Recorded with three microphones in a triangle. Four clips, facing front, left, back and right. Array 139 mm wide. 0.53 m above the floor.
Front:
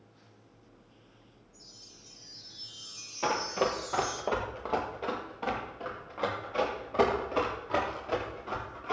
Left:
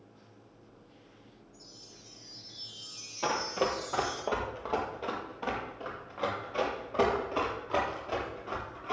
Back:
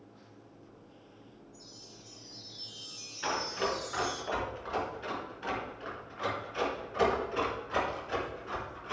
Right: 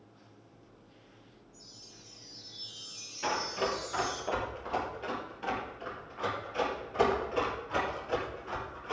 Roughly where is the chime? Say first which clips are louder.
Left 2 dB, back 5 dB; ahead.